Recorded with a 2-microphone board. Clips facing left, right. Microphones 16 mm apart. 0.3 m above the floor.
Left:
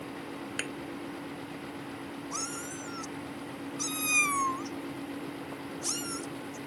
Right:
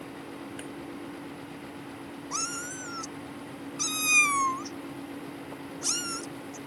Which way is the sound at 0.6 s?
80° left.